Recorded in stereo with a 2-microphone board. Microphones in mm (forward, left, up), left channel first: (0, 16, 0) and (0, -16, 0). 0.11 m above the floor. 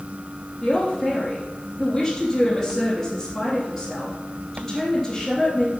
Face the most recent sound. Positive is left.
turn(degrees=0)  # may be behind; listen again after turning